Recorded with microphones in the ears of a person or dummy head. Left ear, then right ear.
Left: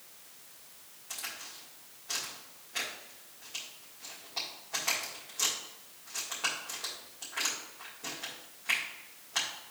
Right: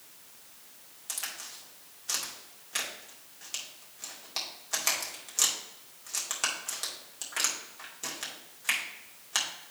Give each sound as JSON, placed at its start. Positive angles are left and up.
{"t": 1.1, "sound": "a crack", "side_deg": -70, "distance_m": 2.0}